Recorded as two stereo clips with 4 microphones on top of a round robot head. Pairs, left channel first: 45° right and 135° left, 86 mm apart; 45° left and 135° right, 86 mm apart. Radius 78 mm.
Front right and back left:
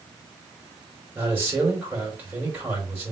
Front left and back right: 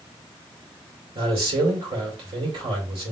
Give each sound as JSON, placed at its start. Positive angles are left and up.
{"t": 1.1, "sound": "a man speaking", "azimuth_deg": -155, "distance_m": 2.0}